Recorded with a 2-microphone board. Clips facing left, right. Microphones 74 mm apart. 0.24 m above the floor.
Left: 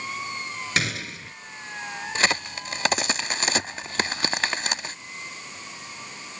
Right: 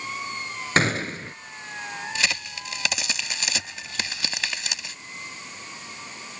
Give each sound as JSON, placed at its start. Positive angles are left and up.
{"t": 0.8, "sound": "a gunshot", "side_deg": -40}
{"t": 2.1, "sound": "a crack", "side_deg": 45}